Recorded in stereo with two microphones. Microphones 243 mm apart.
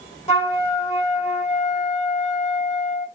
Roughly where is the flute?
Left.